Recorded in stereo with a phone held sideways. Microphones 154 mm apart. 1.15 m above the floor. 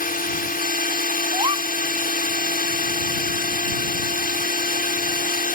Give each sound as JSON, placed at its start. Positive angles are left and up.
{"t": 0.0, "sound": "a drone", "side_deg": 75}
{"t": 1.3, "sound": "a gasp", "side_deg": -40}